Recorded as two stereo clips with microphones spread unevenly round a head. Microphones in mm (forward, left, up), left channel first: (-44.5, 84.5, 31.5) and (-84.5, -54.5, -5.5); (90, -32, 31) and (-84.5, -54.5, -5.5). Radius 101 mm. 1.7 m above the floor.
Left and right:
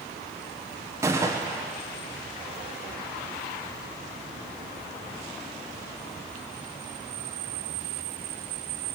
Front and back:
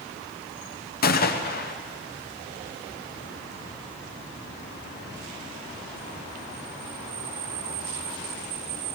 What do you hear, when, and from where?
1.0 s a gunshot: 30° right, 1.3 m